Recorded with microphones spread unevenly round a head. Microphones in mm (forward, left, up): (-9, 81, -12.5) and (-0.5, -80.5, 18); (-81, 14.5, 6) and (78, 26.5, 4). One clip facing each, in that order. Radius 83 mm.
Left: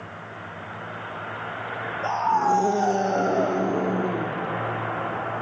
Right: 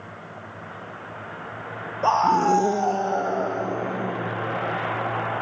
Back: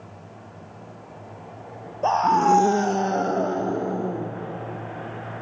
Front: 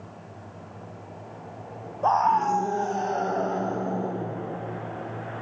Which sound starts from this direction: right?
A scream, at 2.0 s.